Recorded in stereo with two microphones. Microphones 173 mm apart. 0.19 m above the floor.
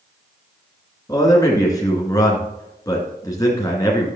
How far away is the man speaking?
About 2.5 m.